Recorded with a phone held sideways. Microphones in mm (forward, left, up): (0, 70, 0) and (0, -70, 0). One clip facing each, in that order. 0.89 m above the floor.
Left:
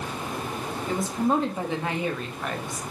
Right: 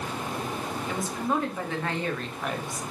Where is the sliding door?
No sliding door in this recording.